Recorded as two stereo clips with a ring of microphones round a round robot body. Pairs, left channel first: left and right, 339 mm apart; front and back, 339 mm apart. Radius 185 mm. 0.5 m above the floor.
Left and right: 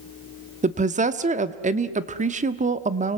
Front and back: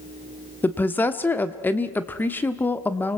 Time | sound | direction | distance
0.6 | a woman speaking | 75° right | 0.9 m